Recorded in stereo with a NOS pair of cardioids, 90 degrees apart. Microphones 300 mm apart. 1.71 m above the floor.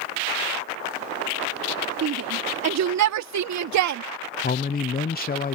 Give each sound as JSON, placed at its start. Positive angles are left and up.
{"t": 2.0, "sound": "a shout", "azimuth_deg": -55}
{"t": 4.4, "sound": "a man speaking", "azimuth_deg": 30}